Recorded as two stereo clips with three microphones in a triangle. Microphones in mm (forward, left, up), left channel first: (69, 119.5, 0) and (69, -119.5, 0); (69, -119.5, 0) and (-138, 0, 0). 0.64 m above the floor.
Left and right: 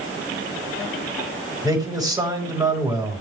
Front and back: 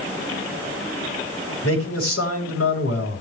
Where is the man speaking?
15° right, 4 m.